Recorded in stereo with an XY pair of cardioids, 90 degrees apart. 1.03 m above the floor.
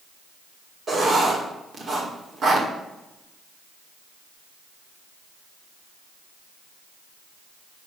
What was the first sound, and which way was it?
Writing, 50° right.